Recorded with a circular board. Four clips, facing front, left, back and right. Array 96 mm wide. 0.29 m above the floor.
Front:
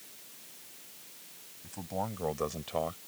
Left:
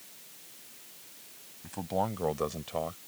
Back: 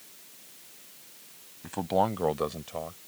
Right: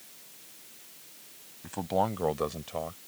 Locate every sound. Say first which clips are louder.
1.6 s a man speaking: right 3 dB, back 10 dB; 160° right; by 3.0 s 20° left